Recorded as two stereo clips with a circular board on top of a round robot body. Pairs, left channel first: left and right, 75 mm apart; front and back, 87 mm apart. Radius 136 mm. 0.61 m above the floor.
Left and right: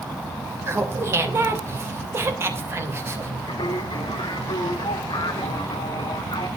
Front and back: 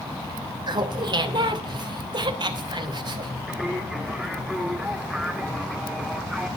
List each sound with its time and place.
0.7 s laughter: 145° right, 3 m
3.5 s singing: 95° left, 2.5 m